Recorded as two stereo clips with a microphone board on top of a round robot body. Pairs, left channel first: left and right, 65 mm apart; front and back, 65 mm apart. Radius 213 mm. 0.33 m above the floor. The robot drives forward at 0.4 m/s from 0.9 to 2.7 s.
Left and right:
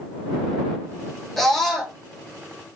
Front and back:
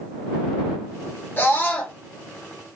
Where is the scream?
5° left, 1.5 m; by 2.0 s 10° left, 1.4 m.